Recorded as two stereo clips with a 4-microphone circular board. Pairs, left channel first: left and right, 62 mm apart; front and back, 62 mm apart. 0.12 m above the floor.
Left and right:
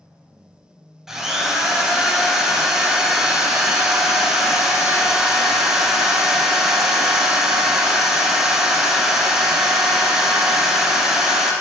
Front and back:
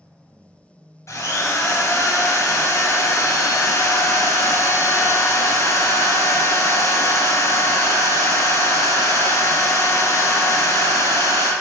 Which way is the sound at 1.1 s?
15° right.